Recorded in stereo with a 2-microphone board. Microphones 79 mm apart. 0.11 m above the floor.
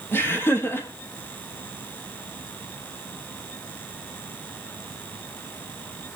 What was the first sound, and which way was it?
Laughter, 30° left (ahead or behind).